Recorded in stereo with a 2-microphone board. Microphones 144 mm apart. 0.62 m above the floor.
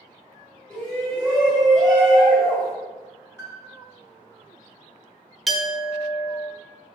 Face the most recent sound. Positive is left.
turn(degrees=0)  # may be behind; listen again after turning